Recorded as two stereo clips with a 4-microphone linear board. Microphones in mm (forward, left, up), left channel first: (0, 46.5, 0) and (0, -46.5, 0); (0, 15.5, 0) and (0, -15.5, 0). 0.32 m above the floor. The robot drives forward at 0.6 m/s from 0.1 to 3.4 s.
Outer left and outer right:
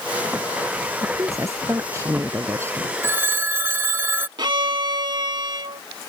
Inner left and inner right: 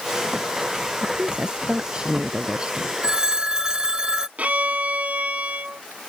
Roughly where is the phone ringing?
Right.